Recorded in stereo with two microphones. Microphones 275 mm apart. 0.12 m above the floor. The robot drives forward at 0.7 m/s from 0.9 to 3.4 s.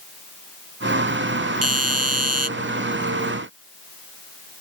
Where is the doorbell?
60° right (ahead or behind); by 2.5 s 65° right (ahead or behind).